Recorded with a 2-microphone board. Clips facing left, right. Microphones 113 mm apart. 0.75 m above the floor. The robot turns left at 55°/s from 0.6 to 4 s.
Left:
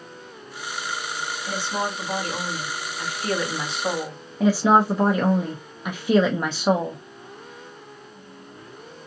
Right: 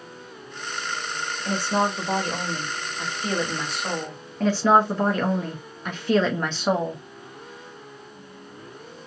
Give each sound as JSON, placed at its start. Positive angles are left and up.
{"t": 1.4, "sound": "a woman speaking", "azimuth_deg": -55, "distance_m": 1.7}
{"t": 4.4, "sound": "a woman speaking", "side_deg": 10, "distance_m": 0.5}